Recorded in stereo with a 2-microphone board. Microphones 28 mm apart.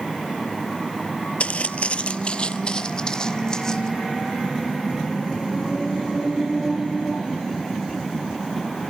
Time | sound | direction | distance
1.4 | footsteps | 55° left (ahead or behind) | 0.6 m